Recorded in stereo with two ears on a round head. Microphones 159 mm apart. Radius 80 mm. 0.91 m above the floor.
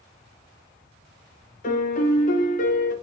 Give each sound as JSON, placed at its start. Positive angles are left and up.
{"t": 1.6, "sound": "a piano", "side_deg": 45, "distance_m": 0.8}